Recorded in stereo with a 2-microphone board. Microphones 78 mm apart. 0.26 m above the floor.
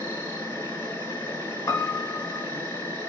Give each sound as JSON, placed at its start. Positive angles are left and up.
{"t": 0.0, "sound": "an insect", "side_deg": 30, "distance_m": 1.0}
{"t": 1.7, "sound": "a piano", "side_deg": 35, "distance_m": 1.0}